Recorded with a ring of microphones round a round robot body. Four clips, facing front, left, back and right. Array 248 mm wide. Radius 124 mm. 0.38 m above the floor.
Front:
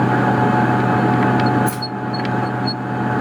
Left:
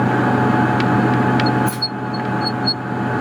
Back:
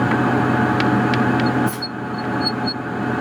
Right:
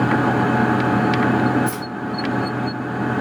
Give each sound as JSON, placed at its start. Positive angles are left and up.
{"t": 1.7, "sound": "keys jangling", "azimuth_deg": -20, "distance_m": 2.0}